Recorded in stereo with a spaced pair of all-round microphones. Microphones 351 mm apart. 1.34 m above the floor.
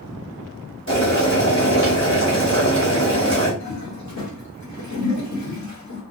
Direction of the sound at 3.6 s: 50° left (ahead or behind).